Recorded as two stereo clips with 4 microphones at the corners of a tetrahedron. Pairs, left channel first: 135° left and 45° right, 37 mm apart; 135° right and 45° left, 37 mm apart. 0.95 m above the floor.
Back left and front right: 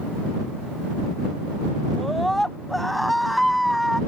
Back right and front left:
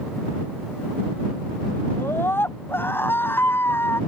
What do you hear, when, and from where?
1.9 s a scream: 140° right; by 4.0 s 135° right